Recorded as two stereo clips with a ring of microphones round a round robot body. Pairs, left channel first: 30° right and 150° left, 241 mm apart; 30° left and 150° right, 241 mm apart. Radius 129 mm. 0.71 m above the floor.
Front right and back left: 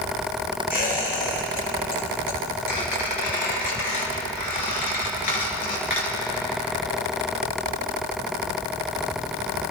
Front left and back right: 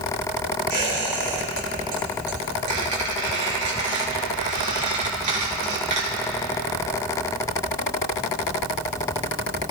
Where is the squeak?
85° right, 4 m.